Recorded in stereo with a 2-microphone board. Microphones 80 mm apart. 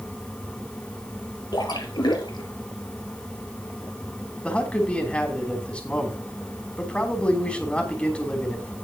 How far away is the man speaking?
About 3 m.